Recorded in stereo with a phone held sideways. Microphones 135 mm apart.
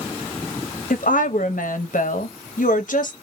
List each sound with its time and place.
0.9 s a woman speaking: 80° left, 0.9 m